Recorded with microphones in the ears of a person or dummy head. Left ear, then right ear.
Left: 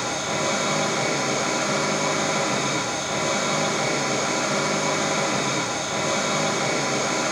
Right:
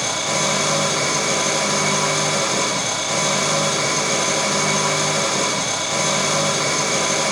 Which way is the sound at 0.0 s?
70° right (ahead or behind).